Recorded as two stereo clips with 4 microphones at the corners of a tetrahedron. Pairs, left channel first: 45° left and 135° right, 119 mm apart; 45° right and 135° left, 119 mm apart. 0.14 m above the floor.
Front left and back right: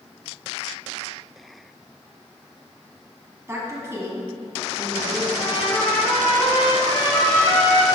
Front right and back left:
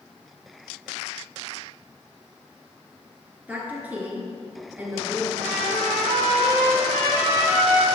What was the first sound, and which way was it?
A woman speaking, 165° right.